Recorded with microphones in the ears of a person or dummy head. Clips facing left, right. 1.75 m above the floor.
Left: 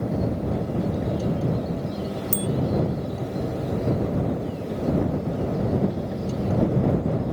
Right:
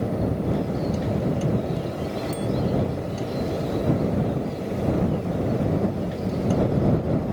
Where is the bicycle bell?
75° left (ahead or behind).